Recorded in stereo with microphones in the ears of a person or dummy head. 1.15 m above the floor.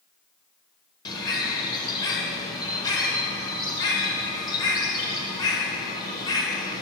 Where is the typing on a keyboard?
I don't hear typing on a keyboard.